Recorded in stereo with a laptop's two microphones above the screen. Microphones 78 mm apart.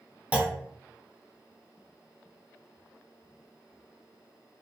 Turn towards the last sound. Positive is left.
turn(degrees=-15)  # may be behind; listen again after turning